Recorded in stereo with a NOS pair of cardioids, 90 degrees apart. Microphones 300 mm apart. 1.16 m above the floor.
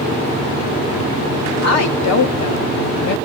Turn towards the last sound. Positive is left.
turn(degrees=75)